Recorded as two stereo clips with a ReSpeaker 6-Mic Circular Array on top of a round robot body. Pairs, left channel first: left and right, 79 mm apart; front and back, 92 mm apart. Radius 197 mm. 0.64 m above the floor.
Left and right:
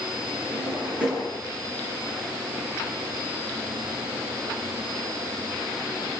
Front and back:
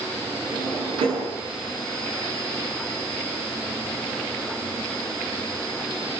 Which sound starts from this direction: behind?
A drawer, at 0.5 s.